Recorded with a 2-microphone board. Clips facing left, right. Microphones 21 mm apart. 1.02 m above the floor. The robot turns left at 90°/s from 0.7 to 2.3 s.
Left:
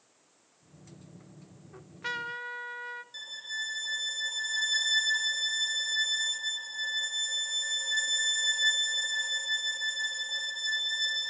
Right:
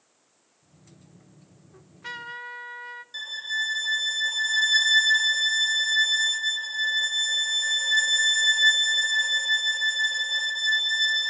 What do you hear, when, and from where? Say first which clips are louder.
1.7 s a trumpet: left 2 dB; 50° left, 1.4 m; by 3.0 s straight ahead, 1.4 m
3.1 s a violin: right 10 dB; 25° right (ahead or behind), 0.9 m